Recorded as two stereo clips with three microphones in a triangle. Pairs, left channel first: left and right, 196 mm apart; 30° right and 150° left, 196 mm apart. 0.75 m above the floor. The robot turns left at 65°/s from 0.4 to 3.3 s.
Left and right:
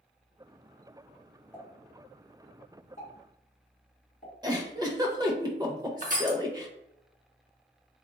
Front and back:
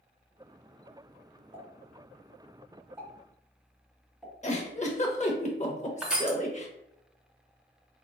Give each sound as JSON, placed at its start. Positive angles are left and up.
{"t": 1.5, "sound": "a pop", "azimuth_deg": 170, "distance_m": 1.3}
{"t": 4.4, "sound": "a giggle", "azimuth_deg": -35, "distance_m": 0.5}
{"t": 6.0, "sound": "crushing", "azimuth_deg": -125, "distance_m": 0.6}